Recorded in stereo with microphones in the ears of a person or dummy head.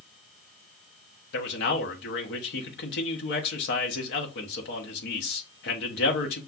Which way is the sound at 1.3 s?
55° left (ahead or behind).